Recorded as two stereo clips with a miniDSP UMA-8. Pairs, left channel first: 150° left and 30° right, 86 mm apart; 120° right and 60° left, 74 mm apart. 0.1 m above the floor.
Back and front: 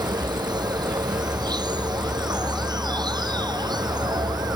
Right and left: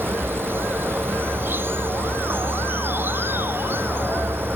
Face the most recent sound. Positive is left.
turn(degrees=0)